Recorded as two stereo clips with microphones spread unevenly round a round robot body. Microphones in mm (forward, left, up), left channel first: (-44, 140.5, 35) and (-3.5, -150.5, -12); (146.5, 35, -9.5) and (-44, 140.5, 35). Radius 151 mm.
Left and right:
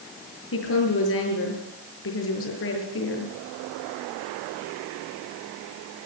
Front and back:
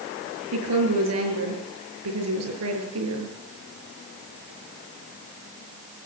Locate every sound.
0.5 s a woman speaking: 145° left, 7.5 m